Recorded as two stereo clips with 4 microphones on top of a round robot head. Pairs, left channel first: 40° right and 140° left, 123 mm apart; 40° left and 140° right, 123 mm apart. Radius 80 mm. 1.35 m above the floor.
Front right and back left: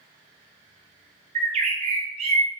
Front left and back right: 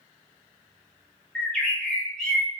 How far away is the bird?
About 0.5 m.